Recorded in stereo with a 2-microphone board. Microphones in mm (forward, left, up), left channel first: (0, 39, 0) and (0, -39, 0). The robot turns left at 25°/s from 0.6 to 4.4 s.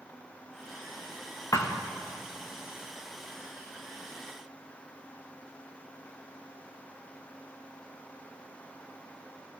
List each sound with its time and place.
1.5 s a thud: 40° left (ahead or behind), 2 m; by 1.8 s 35° left (ahead or behind), 2 m